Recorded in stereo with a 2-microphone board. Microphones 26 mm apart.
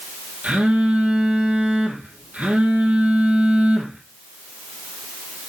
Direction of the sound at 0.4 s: 70° right (ahead or behind).